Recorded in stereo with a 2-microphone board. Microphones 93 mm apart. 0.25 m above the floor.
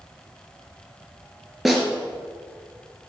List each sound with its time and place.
1.6 s a snare drum: centre (ahead or behind), 2 m